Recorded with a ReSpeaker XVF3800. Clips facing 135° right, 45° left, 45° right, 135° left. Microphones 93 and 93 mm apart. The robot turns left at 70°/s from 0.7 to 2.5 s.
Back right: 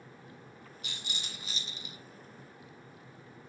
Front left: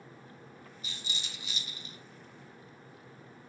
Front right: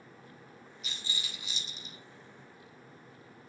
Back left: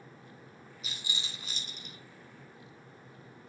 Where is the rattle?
135° right, 1.5 m; by 2.0 s 145° left, 1.5 m.